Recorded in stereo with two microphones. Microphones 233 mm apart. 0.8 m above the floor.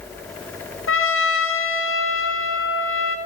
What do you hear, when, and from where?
0.9 s a trumpet: 65° left (ahead or behind), 0.8 m